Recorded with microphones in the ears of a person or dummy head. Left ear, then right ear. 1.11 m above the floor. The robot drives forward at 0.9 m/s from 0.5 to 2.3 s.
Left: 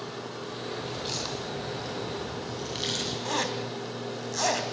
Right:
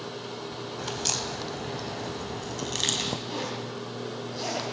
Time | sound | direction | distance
0.8 | a crack | 65° right (ahead or behind) | 3.5 m
3.2 | a zipper | 50° left (ahead or behind) | 3.5 m